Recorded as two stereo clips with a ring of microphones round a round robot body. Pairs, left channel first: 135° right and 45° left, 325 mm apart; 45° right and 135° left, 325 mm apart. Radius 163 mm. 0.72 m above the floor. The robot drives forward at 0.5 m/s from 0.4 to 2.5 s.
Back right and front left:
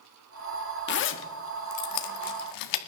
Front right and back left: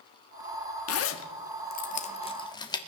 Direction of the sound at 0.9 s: 80° right.